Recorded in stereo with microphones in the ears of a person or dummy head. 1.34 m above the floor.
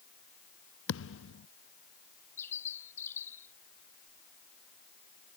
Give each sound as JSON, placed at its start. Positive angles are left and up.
{"t": 0.9, "sound": "a thud", "side_deg": 80}
{"t": 2.4, "sound": "a bird", "side_deg": 10}